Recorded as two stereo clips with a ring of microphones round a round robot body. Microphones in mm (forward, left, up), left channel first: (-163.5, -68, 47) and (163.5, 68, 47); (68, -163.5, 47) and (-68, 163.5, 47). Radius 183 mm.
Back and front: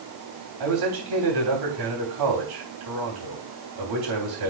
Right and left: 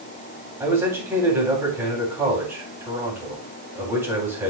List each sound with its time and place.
0.6 s a man speaking: 30° left, 3 m